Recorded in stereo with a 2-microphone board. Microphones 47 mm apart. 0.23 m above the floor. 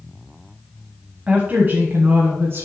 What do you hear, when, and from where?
1.3 s a woman speaking: 30° right (ahead or behind), 1.4 m; by 2.7 s 65° right (ahead or behind), 2.5 m